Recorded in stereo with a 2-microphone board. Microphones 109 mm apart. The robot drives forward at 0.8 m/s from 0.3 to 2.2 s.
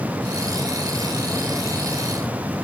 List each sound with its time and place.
Only background noise.